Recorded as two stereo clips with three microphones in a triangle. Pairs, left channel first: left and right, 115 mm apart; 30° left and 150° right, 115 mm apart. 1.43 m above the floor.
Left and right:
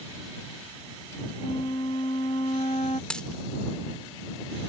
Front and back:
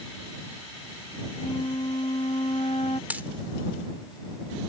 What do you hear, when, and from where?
1.4 s a flute: 60° left
3.1 s a dropped coin: 165° left